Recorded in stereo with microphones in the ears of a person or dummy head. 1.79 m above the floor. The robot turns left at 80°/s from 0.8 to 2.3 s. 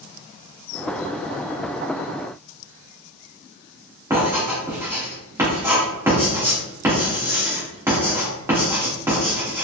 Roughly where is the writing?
Centre.